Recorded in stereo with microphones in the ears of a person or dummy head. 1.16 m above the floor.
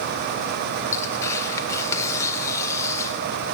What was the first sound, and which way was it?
Tearing paper, 15° left (ahead or behind).